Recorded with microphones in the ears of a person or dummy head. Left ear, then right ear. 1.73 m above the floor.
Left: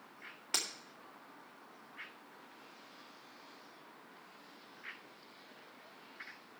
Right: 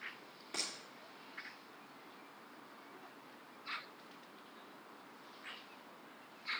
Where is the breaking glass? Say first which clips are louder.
Left 5 dB; 55° left (ahead or behind), 2.5 m.